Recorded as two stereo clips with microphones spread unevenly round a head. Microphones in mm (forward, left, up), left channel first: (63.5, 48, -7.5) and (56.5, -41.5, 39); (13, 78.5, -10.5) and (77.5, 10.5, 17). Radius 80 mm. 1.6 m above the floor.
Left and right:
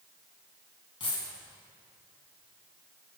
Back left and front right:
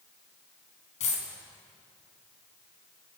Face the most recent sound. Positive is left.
turn(degrees=155)